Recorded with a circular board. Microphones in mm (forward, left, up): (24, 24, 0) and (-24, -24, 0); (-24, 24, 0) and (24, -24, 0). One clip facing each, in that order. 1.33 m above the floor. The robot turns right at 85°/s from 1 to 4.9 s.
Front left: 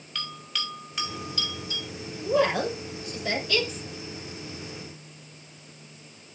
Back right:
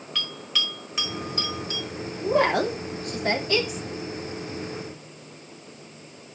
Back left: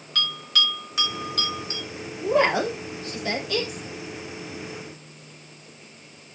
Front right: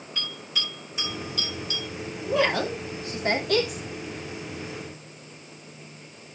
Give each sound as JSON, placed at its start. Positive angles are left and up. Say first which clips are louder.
{"t": 0.1, "sound": "a bell", "louder": "back right 3 dB, back left 8 dB", "azimuth_deg": 135, "distance_m": 5.0}
{"t": 2.2, "sound": "a woman speaking", "louder": "back right 2 dB, back left 3 dB", "azimuth_deg": 175, "distance_m": 3.0}